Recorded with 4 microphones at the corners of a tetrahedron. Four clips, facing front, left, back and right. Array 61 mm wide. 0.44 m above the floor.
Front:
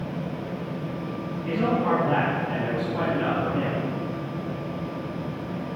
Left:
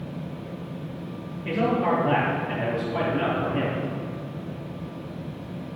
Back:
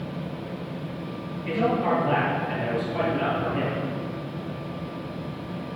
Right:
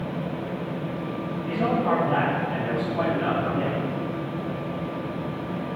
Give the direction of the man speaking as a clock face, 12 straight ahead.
9 o'clock.